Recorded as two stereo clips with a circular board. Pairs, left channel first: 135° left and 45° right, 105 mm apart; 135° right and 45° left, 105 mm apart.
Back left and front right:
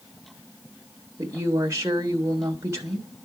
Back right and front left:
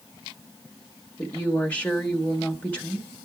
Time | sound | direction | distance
1.2 | a woman speaking | 75° right | 1.1 m